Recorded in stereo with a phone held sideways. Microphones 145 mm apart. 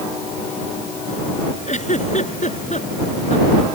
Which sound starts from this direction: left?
A giggle, at 1.7 s.